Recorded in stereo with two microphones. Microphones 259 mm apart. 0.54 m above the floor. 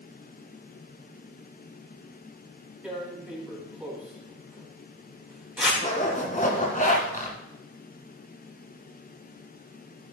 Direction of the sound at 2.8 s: 5° right (ahead or behind).